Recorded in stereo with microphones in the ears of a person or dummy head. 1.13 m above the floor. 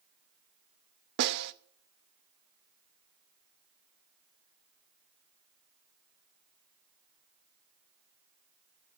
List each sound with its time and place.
1.2 s a snare drum: 60° right (ahead or behind), 0.6 m